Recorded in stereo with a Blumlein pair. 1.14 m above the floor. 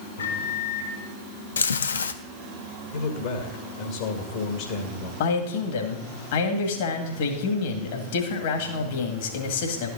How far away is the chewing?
About 0.6 m.